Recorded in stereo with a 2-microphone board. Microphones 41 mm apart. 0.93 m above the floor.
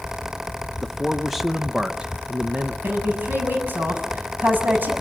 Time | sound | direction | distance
0.8 | a man speaking | 20° left (ahead or behind) | 0.8 m
2.8 | a woman speaking | 55° right (ahead or behind) | 7 m